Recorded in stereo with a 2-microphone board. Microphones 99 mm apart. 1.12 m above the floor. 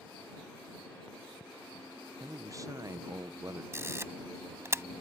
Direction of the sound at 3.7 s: 30° right (ahead or behind).